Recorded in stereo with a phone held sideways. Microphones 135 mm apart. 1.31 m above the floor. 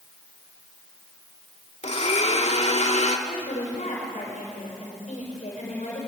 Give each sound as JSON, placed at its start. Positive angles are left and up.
{"t": 1.8, "sound": "a blender", "side_deg": 55, "distance_m": 2.0}
{"t": 3.3, "sound": "a woman speaking", "side_deg": 60, "distance_m": 6.0}